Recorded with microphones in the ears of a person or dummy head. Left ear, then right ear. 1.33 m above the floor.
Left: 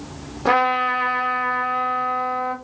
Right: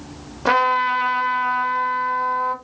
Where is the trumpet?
15° right (ahead or behind), 0.6 m.